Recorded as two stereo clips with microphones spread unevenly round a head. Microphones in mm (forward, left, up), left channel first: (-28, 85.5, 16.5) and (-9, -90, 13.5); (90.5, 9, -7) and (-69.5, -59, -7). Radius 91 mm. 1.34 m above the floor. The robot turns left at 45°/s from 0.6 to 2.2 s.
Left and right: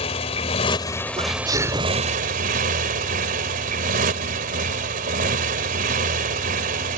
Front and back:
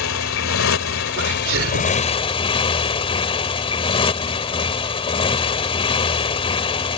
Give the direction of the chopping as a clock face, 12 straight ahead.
I don't hear chopping.